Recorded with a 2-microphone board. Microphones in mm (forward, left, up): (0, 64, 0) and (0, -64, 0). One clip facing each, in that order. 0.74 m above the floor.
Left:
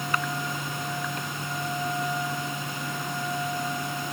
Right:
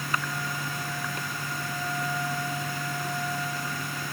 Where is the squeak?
I don't hear a squeak.